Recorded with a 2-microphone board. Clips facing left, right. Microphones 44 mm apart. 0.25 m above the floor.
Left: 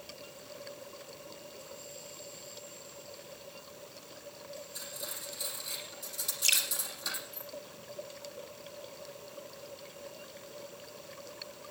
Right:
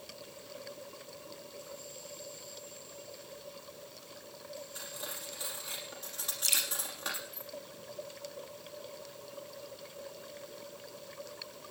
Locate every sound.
4.8 s cutlery clinking: 45° right (ahead or behind), 5.5 m
6.4 s dripping: 50° left (ahead or behind), 3.5 m